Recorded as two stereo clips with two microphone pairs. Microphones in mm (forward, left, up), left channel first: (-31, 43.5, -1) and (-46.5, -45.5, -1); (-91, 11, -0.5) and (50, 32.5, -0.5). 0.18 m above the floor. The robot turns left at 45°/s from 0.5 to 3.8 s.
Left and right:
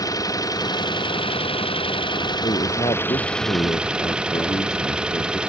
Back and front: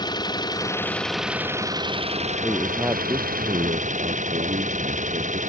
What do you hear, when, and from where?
0.0 s an engine running: 130° left; by 5.5 s 20° right
2.4 s a man speaking: 105° left; by 5.4 s 40° left